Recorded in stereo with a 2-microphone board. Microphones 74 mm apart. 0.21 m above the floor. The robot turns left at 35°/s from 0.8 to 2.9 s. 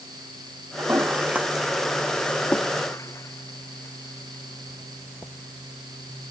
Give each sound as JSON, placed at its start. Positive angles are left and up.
{"t": 0.8, "sound": "a toilet flushing", "side_deg": -35}